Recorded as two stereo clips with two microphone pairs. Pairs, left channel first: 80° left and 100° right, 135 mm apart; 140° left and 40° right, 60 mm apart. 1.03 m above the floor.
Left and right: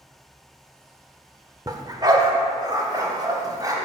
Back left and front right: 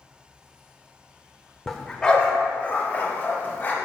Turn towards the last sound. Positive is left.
turn(degrees=-160)